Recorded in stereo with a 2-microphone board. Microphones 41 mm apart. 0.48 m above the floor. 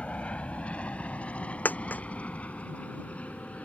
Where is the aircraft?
30° left (ahead or behind); by 3.7 s 35° left (ahead or behind).